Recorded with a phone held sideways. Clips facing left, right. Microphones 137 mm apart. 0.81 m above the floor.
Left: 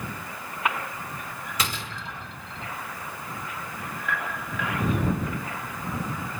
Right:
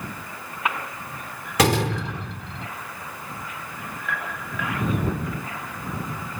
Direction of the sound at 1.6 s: 70° right (ahead or behind).